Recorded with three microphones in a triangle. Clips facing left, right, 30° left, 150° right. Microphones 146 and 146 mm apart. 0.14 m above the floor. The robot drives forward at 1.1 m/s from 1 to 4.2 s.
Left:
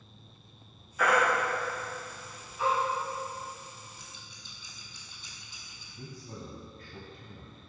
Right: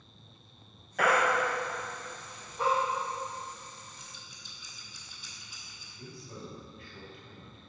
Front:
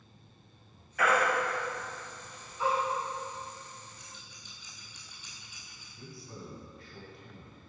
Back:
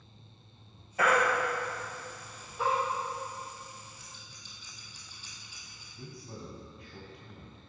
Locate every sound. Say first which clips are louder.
1.0 s a baby crying: even, back 1 dB; 90° right, 2.5 m; by 2.7 s 130° right, 3 m
4.0 s scissors: left 1 dB, even; 145° left, 2.5 m; by 5.8 s 150° left, 2.5 m
5.9 s a man speaking: left 2 dB, back 1 dB; 140° left, 2.5 m